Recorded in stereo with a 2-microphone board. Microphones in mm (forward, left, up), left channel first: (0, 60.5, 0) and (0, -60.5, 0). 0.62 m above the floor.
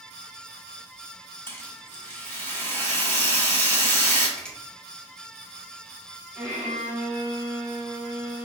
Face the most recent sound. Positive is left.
turn(degrees=-15)  # may be behind; listen again after turning